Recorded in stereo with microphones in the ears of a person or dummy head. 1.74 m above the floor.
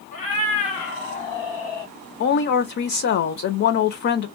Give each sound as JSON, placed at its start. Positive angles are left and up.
{"t": 0.1, "sound": "a cat meowing", "side_deg": 30, "distance_m": 1.5}
{"t": 2.2, "sound": "a woman speaking", "side_deg": 60, "distance_m": 0.8}